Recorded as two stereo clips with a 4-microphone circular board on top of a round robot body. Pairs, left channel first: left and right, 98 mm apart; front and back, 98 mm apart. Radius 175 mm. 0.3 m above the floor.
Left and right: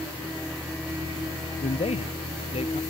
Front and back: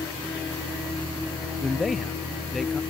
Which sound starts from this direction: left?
A man speaking, at 1.6 s.